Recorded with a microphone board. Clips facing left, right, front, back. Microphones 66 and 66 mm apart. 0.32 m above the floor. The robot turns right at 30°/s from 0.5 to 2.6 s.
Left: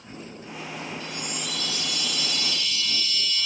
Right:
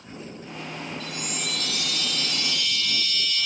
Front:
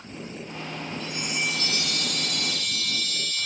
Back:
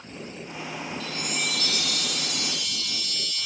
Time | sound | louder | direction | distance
1.0 | a chime | right 1 dB, front 3 dB | 75° right | 0.9 m